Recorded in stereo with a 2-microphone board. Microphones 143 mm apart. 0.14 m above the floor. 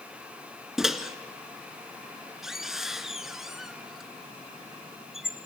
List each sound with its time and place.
0.8 s a microwave: centre (ahead or behind), 1.4 m